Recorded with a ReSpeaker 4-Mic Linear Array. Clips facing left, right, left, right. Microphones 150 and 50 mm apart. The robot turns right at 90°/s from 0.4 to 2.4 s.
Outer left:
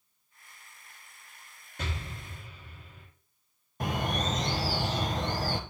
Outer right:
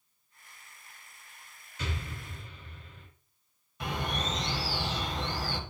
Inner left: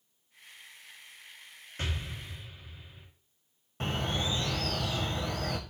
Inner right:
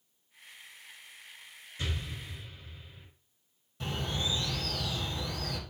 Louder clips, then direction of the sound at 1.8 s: Even, inner left 1 dB; 55° left (ahead or behind).